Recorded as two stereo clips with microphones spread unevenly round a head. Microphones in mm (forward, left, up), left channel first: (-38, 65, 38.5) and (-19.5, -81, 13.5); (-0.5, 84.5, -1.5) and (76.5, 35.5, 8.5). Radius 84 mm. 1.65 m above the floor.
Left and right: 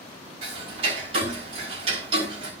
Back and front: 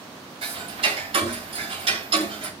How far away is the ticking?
About 5.5 m.